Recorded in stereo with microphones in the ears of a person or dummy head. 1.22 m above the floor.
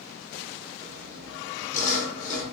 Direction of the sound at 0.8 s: 40° left (ahead or behind).